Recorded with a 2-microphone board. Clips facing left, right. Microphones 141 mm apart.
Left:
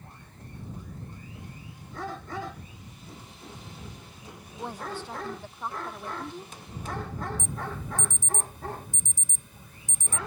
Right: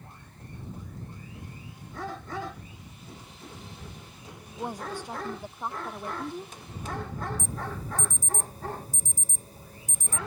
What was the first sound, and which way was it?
A woman speaking, 15° right (ahead or behind).